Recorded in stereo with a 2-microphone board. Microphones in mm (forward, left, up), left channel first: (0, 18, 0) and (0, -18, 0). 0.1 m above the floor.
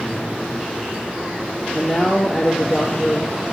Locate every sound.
1.7 s a man speaking: 25° left (ahead or behind), 2.5 m